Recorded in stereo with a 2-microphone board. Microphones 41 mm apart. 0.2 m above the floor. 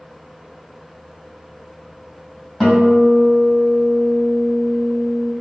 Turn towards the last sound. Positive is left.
turn(degrees=5)  # may be behind; listen again after turning